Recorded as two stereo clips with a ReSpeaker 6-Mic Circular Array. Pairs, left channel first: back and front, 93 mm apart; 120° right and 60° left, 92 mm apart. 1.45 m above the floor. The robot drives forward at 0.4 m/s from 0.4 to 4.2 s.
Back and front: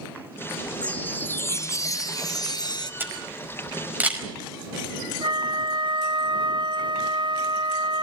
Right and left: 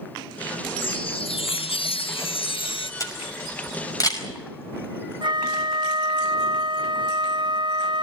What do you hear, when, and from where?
0.8 s a chime: 100° right, 0.8 m; by 2.9 s 140° right, 1.3 m
3.0 s a camera shutter: 70° right, 5 m; by 4.3 s 75° right, 5 m
5.2 s a flute: 30° left, 0.6 m